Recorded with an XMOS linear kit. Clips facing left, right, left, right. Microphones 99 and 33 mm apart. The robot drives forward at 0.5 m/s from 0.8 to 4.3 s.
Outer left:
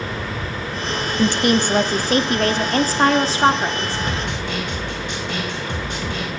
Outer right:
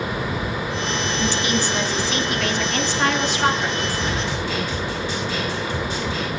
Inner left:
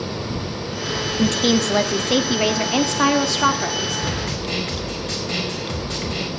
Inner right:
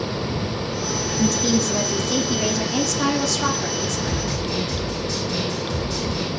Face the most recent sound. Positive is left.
turn(degrees=65)  # may be behind; listen again after turning